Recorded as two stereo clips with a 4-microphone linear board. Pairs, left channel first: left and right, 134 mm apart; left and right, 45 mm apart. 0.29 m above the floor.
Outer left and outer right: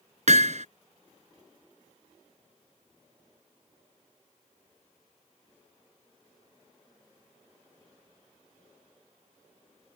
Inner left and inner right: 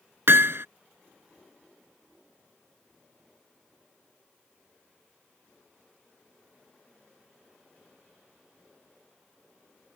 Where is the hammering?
65° right (ahead or behind).